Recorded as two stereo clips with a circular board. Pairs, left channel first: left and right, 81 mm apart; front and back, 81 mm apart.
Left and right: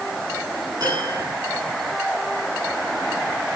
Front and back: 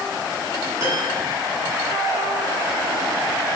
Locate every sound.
0.8 s a piano: 130° right, 8.5 m